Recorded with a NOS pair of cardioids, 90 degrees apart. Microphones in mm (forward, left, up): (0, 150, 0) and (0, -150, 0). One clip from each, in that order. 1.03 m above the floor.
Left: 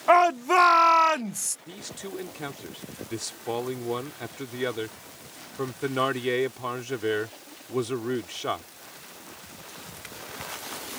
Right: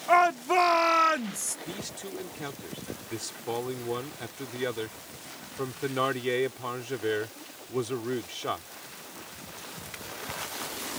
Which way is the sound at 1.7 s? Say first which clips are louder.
Even; 25° left.